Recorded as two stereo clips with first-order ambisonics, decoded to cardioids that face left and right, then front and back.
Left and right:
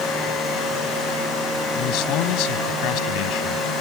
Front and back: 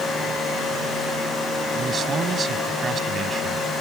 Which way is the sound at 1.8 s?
115° left.